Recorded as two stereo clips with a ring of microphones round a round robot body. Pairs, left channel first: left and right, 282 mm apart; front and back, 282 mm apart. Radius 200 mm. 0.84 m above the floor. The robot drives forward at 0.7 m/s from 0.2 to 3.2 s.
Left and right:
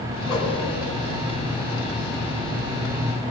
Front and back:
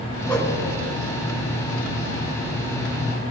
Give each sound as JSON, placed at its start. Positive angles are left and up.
{"t": 0.3, "sound": "a whoosh", "azimuth_deg": 70, "distance_m": 1.4}